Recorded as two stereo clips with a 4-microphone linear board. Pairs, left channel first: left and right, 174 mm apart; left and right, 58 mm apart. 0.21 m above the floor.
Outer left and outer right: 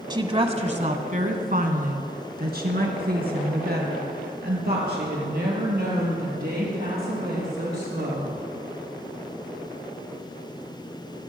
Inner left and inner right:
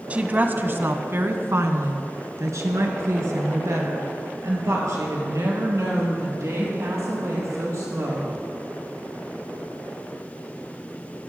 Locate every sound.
0.1 s a woman speaking: 25° right (ahead or behind), 1.1 m; by 8.4 s 65° right (ahead or behind), 5.5 m